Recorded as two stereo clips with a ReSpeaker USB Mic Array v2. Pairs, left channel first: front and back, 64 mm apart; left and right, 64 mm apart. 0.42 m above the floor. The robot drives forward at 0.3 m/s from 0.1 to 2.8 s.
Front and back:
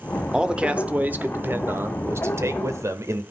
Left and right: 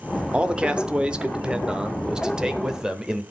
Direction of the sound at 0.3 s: 130° right.